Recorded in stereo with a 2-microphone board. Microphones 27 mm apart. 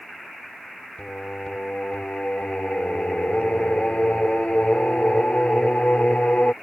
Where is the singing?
60° left (ahead or behind).